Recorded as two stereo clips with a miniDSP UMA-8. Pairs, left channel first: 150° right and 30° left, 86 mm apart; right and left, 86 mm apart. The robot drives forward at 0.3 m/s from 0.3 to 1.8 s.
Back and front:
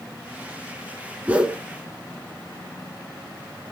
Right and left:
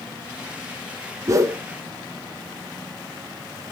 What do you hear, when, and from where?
1.3 s a whoosh: 90° left, 0.6 m; by 1.6 s 105° left, 0.6 m